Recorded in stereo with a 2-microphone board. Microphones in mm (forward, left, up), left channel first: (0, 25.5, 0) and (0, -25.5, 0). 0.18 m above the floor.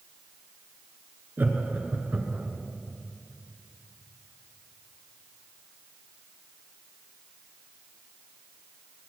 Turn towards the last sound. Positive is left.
turn(degrees=-25)  # may be behind; listen again after turning